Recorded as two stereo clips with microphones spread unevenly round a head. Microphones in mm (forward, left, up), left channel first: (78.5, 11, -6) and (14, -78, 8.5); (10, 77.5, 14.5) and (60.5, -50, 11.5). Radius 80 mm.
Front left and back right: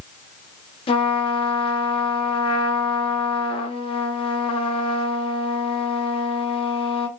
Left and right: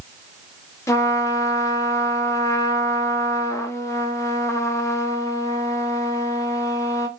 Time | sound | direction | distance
0.9 | a trumpet | 45° left | 0.5 m